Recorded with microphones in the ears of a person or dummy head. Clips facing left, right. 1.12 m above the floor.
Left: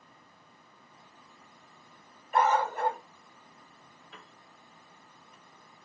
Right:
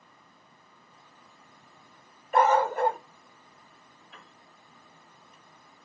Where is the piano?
75° left (ahead or behind), 1.7 m.